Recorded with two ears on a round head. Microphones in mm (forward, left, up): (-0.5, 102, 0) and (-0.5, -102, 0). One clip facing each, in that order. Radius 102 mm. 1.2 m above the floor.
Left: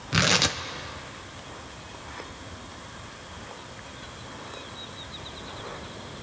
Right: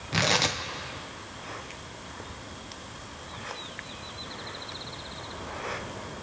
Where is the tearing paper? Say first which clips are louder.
Left 1 dB; 15° left (ahead or behind), 0.7 m.